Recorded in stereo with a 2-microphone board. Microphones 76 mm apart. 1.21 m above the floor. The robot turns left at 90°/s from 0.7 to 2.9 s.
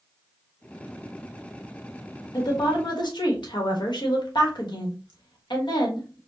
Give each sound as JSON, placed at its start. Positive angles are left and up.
{"t": 2.3, "sound": "a woman speaking", "azimuth_deg": 125, "distance_m": 1.3}